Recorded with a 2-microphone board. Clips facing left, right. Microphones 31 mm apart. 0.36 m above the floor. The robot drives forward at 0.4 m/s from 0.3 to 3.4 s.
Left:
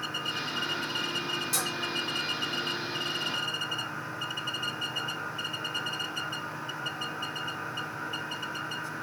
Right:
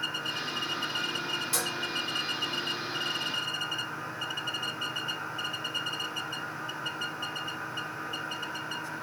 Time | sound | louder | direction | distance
1.5 | dishes clattering | even | 40° right (ahead or behind) | 1.8 m